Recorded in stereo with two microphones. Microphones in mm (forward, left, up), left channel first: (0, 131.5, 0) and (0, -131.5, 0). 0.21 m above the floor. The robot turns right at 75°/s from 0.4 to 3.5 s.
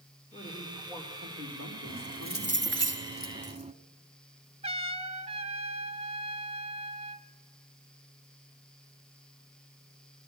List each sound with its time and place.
0.3 s a woman speaking: 150° left, 6.5 m; by 2.8 s 35° right, 6.5 m
1.9 s keys jangling: 160° right, 0.9 m; by 3.7 s 35° right, 0.9 m
4.6 s a trumpet: 25° right (ahead or behind), 0.9 m